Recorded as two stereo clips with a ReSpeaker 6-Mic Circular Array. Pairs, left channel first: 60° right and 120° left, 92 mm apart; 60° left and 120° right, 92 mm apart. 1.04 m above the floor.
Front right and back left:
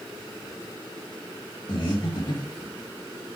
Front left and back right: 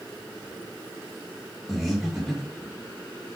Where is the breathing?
30° right, 1.1 m.